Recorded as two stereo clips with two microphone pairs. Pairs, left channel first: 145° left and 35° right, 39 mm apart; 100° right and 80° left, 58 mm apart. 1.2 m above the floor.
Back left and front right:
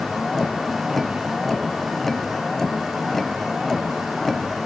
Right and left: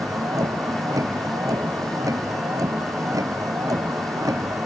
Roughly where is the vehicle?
Ahead left.